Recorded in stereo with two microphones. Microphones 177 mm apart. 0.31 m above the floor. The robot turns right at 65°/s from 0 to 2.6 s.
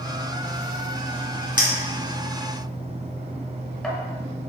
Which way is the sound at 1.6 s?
25° right (ahead or behind).